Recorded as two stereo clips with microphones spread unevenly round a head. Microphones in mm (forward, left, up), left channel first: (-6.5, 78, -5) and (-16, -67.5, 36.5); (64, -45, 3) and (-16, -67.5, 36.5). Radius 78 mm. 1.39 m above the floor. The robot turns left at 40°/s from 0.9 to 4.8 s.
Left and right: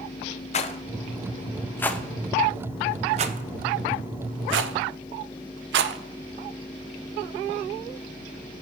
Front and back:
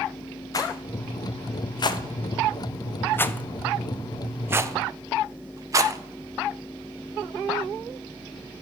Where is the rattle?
55° left, 0.6 m; by 6.0 s 105° right, 0.6 m.